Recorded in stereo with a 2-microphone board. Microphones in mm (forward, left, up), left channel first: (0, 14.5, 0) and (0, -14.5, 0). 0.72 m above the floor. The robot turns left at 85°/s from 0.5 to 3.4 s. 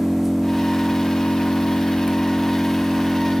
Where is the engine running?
175° right, 1.2 m; by 3.4 s 60° right, 1.2 m.